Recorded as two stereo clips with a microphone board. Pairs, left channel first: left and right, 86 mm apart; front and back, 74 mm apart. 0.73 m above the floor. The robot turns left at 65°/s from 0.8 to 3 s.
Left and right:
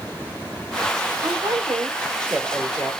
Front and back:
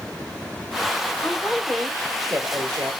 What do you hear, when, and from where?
1.2 s a woman speaking: 75° right, 1.8 m; by 2.9 s 175° left, 1.8 m